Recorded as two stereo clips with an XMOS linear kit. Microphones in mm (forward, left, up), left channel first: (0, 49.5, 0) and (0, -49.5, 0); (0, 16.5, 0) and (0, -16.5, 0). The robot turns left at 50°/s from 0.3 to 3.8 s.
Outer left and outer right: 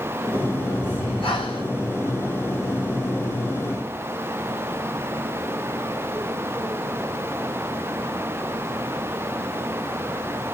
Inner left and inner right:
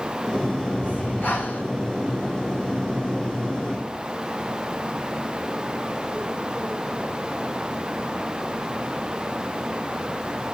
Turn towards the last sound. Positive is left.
turn(degrees=-20)